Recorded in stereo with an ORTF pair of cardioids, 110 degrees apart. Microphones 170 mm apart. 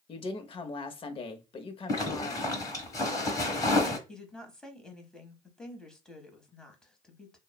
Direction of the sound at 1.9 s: 20° left.